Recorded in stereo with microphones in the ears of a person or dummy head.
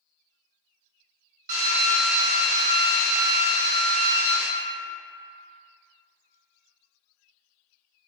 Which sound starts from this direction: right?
A drill, at 1.5 s.